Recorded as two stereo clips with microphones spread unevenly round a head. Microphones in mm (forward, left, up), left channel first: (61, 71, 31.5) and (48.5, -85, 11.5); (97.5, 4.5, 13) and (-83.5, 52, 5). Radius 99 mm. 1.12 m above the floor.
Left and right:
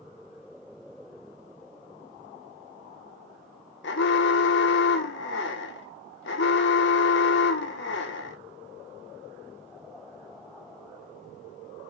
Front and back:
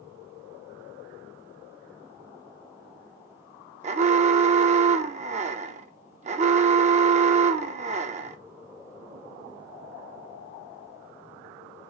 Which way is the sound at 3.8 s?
110° left.